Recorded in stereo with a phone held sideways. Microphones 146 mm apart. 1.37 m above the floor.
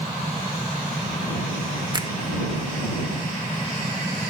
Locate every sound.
1.9 s a finger snap: 30° right (ahead or behind)